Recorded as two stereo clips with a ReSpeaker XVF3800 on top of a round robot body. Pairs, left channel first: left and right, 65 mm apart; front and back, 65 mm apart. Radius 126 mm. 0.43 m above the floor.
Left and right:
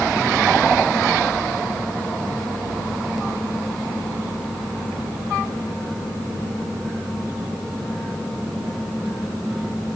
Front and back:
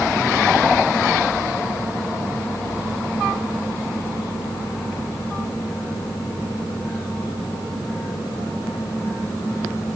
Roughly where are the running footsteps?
No running footsteps in this recording.